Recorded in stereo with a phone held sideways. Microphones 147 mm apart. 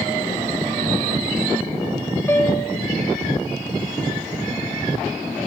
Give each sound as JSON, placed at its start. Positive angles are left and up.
{"t": 2.3, "sound": "a piano", "side_deg": 15, "distance_m": 2.5}